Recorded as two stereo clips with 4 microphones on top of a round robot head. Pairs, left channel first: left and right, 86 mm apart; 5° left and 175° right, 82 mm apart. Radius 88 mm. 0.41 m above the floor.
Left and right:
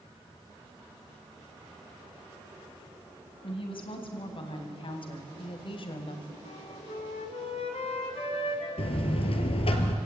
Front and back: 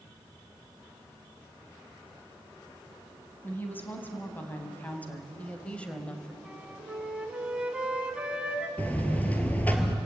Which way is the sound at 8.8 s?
75° left.